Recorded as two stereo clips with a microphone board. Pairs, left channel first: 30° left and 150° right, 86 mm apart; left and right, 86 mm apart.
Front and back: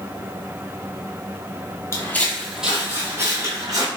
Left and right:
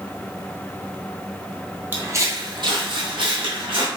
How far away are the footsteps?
About 0.7 m.